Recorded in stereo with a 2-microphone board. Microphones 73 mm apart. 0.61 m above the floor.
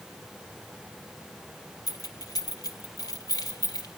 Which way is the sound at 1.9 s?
65° left (ahead or behind).